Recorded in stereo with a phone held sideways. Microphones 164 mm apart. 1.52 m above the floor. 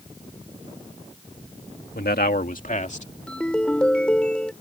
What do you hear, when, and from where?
1.9 s a man speaking: 75° left (ahead or behind); by 3.1 s 45° left (ahead or behind)
3.3 s a ringtone: 5° left (ahead or behind)